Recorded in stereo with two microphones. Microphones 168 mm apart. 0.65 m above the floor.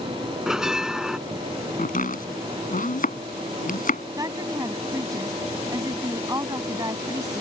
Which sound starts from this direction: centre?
A bell, at 0.5 s.